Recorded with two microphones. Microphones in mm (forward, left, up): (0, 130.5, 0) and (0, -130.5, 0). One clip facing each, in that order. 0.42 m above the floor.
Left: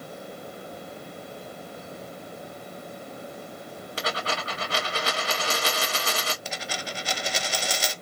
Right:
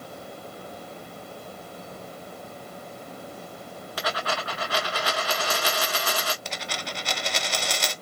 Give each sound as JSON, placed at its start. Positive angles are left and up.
{"t": 4.0, "sound": "a dropped coin", "side_deg": 25, "distance_m": 1.7}
{"t": 6.5, "sound": "a dropped coin", "side_deg": 5, "distance_m": 0.9}